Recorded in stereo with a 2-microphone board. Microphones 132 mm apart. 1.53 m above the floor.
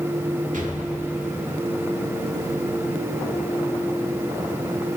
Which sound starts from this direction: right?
An explosion, at 0.5 s.